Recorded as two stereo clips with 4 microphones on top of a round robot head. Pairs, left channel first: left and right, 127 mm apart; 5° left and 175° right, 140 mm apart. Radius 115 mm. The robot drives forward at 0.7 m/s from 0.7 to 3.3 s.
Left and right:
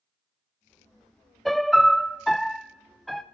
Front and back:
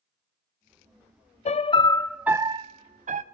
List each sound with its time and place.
1.4 s a piano: straight ahead, 0.7 m; by 3.2 s straight behind, 0.9 m